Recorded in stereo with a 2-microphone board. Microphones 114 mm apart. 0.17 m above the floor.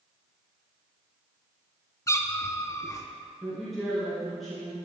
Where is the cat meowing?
25° left (ahead or behind), 0.6 m.